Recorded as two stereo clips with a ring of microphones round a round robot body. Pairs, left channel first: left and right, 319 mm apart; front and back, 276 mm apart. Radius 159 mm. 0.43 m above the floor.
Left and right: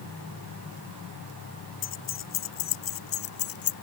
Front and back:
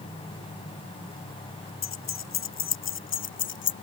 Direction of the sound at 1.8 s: 40° left.